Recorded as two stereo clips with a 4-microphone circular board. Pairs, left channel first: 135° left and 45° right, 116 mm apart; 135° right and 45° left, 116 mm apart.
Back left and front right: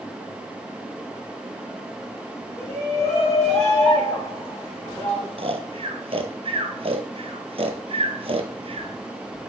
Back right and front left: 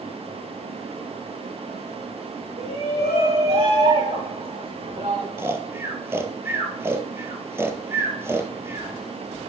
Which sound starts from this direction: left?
A shout, at 2.6 s.